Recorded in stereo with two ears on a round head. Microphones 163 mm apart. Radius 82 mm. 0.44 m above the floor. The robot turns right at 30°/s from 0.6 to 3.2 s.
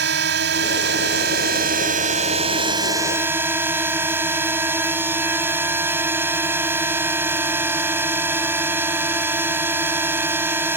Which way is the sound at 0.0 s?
90° right.